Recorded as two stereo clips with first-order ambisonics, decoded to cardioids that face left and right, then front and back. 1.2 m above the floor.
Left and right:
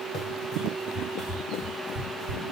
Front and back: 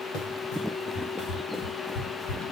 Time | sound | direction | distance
0.1 | running footsteps | 45° left | 2 m